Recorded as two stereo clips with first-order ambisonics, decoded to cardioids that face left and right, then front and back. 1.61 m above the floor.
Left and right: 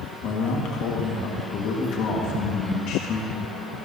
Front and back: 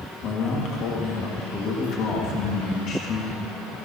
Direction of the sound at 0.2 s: 50° left.